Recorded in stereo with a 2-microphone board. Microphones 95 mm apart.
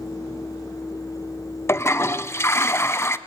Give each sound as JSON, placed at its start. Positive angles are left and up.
{"t": 1.7, "sound": "a toilet flushing", "side_deg": 30, "distance_m": 0.8}